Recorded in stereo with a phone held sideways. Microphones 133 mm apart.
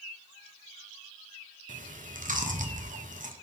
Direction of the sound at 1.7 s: 80° right.